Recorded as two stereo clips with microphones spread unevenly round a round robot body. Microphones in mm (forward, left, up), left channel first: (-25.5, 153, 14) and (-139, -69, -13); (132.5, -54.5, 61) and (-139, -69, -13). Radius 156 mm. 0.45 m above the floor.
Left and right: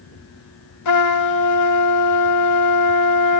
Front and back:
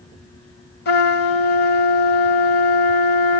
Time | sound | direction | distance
0.8 | a trumpet | 65° left | 1.4 m